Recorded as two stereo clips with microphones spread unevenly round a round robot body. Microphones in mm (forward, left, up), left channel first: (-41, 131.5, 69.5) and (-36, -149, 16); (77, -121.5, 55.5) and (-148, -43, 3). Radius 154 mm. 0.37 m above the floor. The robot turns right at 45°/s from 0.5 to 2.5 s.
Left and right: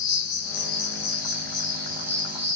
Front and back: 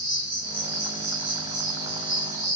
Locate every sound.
0.0 s an insect: 125° left, 1.0 m; by 2.6 s 145° right, 1.0 m